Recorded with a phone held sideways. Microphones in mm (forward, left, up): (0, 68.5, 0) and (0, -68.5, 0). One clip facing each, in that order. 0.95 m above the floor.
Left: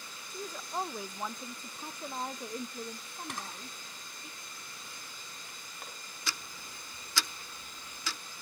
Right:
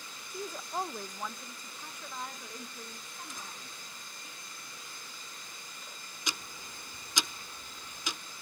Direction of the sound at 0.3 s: 10° right (ahead or behind).